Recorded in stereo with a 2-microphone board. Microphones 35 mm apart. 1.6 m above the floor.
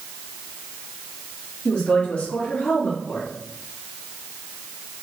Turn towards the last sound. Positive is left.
turn(degrees=45)  # may be behind; listen again after turning